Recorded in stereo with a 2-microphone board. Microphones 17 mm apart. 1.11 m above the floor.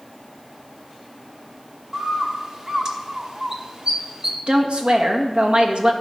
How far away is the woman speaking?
About 1.5 m.